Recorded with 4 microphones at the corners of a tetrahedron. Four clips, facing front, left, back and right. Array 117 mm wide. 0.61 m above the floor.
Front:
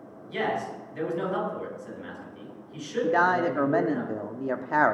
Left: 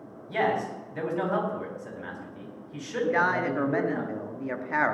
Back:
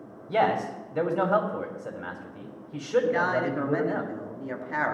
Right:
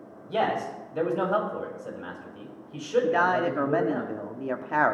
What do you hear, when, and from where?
0.3 s a man speaking: 160° right, 3 m
3.0 s a man speaking: 25° right, 1.0 m